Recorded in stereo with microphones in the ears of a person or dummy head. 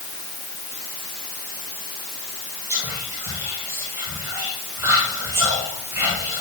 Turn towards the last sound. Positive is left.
turn(degrees=-20)  # may be behind; listen again after turning